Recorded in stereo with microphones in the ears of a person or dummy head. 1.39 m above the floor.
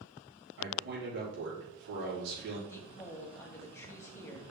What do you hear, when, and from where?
0.6 s a man speaking: 60° right (ahead or behind), 3.5 m
2.7 s a woman speaking: 15° left (ahead or behind), 1.5 m